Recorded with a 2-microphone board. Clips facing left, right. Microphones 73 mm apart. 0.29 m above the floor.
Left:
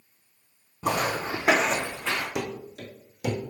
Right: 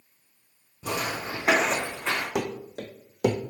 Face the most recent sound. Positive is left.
turn(degrees=-65)  # may be behind; listen again after turning